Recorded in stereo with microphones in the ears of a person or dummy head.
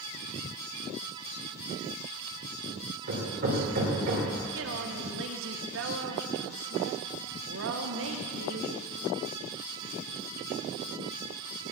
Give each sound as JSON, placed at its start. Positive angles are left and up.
{"t": 3.1, "sound": "hammering", "side_deg": -60, "distance_m": 3.0}
{"t": 4.5, "sound": "a woman speaking", "side_deg": -60, "distance_m": 1.1}